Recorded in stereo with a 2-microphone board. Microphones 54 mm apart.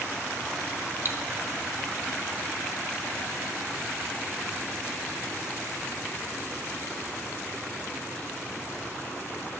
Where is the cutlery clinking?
45° right (ahead or behind), 0.9 m.